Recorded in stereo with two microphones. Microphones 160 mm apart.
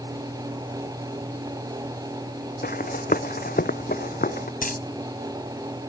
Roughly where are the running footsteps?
Left.